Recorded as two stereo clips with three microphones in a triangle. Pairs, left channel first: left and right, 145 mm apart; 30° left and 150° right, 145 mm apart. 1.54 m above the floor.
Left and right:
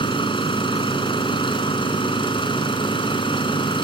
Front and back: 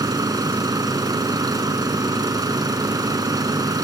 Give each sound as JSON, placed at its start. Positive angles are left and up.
{"t": 0.0, "sound": "an engine running", "azimuth_deg": 145}